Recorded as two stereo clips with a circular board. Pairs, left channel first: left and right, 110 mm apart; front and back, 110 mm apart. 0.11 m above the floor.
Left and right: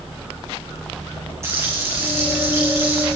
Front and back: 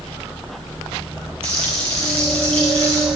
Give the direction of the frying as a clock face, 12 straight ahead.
5 o'clock.